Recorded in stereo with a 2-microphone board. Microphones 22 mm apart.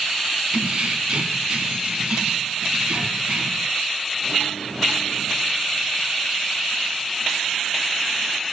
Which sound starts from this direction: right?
Keys jangling, at 0.5 s.